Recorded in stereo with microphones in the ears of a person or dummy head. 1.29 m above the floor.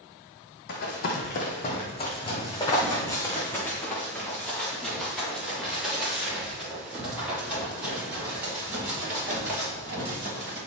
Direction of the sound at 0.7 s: 60° left (ahead or behind).